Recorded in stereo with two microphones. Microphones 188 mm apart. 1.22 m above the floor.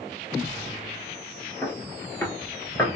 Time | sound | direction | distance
1.6 | footsteps | 10° left (ahead or behind) | 1.3 m